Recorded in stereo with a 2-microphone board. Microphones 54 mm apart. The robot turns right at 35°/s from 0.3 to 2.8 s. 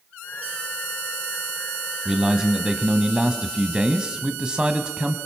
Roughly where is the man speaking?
Centre.